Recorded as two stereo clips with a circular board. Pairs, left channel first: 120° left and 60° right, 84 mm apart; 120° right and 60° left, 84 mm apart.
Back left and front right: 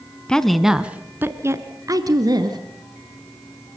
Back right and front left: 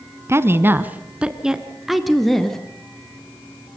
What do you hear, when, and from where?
0.3 s a woman speaking: 50° left, 1.2 m; by 2.6 s 35° right, 2.5 m